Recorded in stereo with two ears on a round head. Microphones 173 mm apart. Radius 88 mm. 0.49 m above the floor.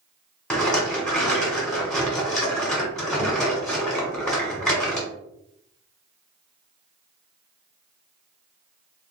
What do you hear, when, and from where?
0.5 s a rattle: 5° left (ahead or behind), 1.4 m